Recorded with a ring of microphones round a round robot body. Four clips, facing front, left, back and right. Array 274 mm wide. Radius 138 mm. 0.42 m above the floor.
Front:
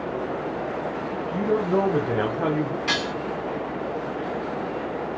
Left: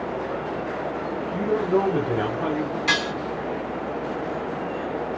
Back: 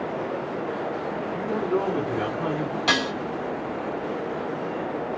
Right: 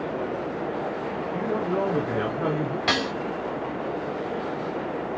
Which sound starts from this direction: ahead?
A man speaking, at 1.3 s.